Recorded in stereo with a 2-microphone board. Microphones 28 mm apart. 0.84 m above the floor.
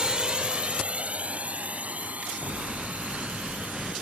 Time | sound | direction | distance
0.0 | a drone | 35° right (ahead or behind) | ?